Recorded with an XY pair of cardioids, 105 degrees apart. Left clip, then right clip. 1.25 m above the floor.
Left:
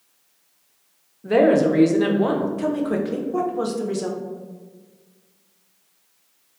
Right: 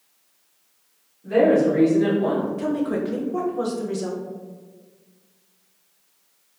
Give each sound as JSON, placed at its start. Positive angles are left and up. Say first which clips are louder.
{"t": 1.2, "sound": "a woman speaking", "louder": "left 1 dB", "azimuth_deg": 65, "distance_m": 0.6}
{"t": 2.6, "sound": "a woman speaking", "louder": "left 1 dB", "azimuth_deg": 20, "distance_m": 0.5}